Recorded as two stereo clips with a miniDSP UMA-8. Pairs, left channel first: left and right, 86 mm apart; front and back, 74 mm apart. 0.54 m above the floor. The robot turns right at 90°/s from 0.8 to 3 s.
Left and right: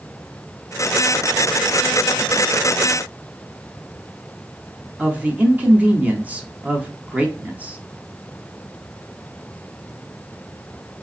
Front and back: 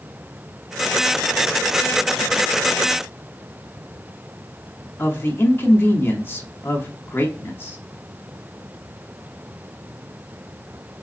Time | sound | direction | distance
5.0 | a woman speaking | 30° right | 0.8 m